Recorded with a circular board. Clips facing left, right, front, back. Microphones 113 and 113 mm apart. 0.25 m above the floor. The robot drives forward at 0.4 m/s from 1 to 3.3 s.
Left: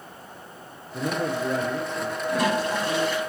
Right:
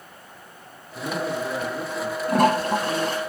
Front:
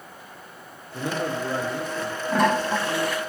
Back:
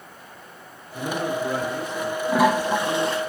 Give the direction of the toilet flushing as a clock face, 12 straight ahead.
3 o'clock.